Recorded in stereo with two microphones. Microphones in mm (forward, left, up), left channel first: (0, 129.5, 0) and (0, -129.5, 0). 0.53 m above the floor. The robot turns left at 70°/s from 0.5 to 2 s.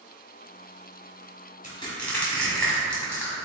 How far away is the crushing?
About 1.9 m.